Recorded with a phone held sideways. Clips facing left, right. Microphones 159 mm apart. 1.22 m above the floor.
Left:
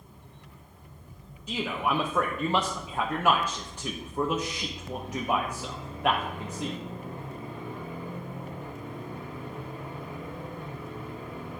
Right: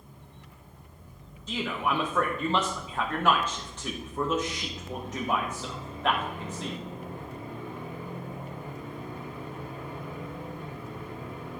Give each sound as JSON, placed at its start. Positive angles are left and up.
{"t": 1.5, "sound": "a man speaking", "side_deg": 10, "distance_m": 0.9}